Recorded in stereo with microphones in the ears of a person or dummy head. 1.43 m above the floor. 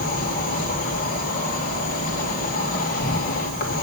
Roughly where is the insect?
Left.